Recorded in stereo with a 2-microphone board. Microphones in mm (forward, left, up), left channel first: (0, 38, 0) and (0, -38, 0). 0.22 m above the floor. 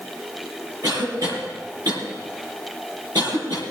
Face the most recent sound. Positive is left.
turn(degrees=-65)  # may be behind; listen again after turning